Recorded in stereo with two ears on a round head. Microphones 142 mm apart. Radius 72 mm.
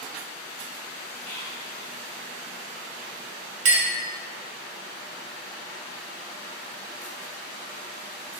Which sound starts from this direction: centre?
Whispering, at 1.2 s.